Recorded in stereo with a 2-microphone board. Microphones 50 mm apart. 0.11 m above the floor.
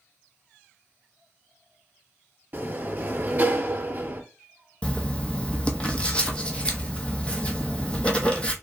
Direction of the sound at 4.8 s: 20° left (ahead or behind).